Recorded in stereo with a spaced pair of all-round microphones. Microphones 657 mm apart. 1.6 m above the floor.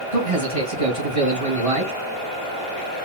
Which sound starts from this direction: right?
A man speaking, at 0.1 s.